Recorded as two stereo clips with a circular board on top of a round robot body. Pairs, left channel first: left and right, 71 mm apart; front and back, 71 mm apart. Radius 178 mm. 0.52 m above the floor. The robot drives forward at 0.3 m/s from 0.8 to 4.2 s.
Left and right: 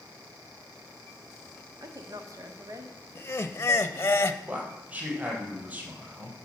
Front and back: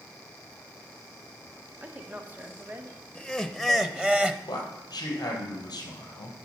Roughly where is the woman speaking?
Right.